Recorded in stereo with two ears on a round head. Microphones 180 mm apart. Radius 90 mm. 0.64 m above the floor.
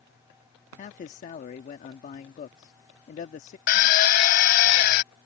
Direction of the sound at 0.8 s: 40° left (ahead or behind).